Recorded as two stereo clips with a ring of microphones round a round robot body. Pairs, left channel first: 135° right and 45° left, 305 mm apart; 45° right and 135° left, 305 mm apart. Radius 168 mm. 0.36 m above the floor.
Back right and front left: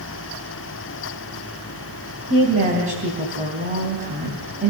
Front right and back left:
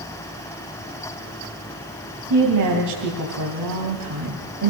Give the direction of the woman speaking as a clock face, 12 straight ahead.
8 o'clock.